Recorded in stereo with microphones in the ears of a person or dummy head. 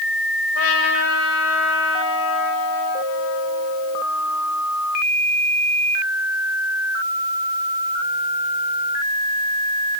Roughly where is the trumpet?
Left.